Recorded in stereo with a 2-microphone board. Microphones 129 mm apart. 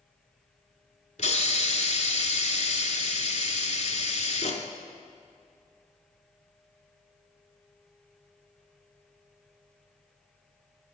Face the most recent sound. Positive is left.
turn(degrees=65)  # may be behind; listen again after turning